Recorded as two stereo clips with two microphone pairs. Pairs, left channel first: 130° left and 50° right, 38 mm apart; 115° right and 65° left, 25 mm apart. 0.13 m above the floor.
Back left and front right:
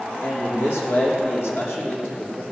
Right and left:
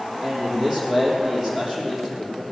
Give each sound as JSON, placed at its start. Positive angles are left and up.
{"t": 0.2, "sound": "a man speaking", "azimuth_deg": 135, "distance_m": 5.5}